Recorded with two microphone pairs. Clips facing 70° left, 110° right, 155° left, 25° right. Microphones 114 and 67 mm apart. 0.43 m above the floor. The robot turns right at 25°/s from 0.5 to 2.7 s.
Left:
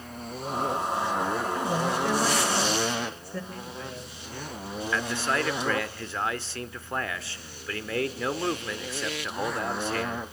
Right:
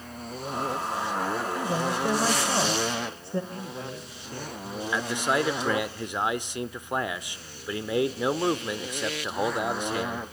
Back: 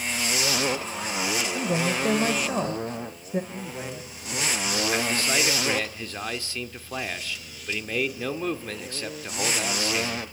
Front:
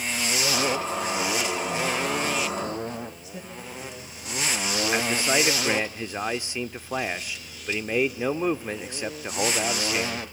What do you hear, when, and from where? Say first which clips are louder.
1.5 s a woman speaking: left 1 dB, back 1 dB; 160° left, 1.7 m; by 3.4 s 170° right, 1.7 m
3.5 s a man speaking: right 2 dB, back 3 dB; 165° right, 9 m
4.9 s a man speaking: right 2 dB, front 3 dB; 60° right, 0.8 m